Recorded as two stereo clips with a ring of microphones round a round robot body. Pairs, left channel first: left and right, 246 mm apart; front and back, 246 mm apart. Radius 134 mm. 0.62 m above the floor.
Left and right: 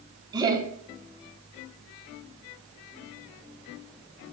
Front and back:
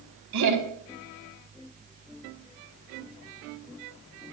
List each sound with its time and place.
0.3 s laughter: 165° right, 4.5 m